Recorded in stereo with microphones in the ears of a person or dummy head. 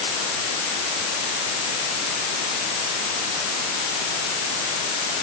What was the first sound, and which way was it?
Only background noise.